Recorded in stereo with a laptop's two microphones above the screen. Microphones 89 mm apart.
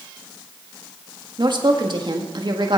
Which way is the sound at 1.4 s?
55° right (ahead or behind).